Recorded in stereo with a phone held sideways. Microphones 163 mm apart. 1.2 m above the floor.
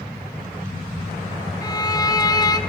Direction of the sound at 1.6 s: 25° left (ahead or behind).